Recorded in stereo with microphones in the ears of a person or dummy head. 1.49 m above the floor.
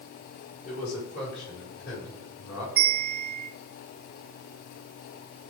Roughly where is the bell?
Centre.